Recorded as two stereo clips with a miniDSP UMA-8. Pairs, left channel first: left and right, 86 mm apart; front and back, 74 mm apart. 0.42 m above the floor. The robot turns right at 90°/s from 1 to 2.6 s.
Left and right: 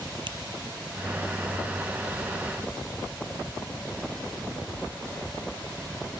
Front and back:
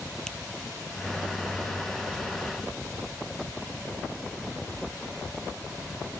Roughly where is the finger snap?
Right.